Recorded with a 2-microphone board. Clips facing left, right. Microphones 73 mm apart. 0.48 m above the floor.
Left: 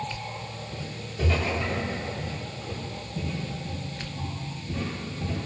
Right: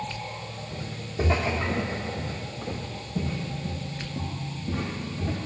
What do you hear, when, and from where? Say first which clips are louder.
0.7 s footsteps: right 2 dB; 25° right (ahead or behind), 5 m; by 5.5 s 65° right (ahead or behind), 7.5 m